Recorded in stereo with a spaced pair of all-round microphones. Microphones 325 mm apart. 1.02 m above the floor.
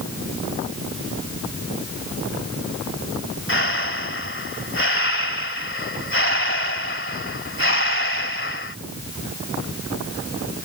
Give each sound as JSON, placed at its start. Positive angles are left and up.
{"t": 3.5, "sound": "breathing", "side_deg": 35}